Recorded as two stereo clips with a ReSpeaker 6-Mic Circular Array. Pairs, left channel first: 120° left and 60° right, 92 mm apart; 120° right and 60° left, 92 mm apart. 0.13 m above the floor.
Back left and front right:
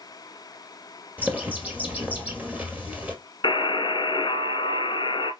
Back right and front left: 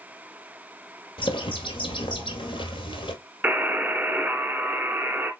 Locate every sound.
1.2 s a bird: 130° right, 1.3 m
3.4 s a buzzer: 130° left, 1.0 m